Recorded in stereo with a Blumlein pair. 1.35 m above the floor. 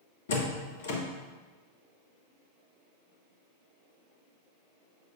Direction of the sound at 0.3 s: 60° left.